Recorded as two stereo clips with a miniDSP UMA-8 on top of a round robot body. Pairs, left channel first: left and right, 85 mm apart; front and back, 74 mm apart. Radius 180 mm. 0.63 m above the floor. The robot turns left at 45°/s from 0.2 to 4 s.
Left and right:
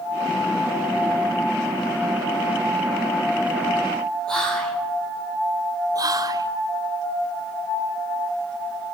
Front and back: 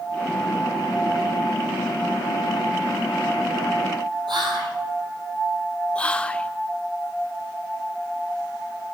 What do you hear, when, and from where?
4.3 s whispering: 170° left, 2.5 m
6.0 s whispering: 70° right, 0.9 m